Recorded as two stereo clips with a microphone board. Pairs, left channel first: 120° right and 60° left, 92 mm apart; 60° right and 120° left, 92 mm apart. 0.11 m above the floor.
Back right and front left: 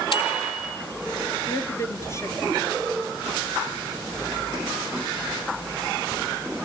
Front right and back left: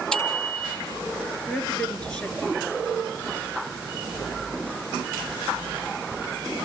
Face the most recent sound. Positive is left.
turn(degrees=-130)